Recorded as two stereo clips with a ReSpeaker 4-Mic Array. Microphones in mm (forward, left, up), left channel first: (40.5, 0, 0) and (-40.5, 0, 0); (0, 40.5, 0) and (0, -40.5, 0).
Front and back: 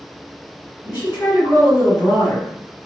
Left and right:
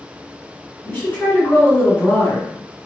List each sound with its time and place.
0.8 s a woman speaking: 30° left, 1.8 m